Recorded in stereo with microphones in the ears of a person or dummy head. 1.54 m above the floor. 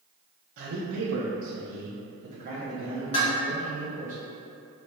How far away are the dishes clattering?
About 1.1 m.